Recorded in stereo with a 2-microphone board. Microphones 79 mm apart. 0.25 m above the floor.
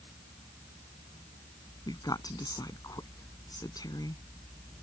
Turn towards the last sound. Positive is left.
turn(degrees=60)  # may be behind; listen again after turning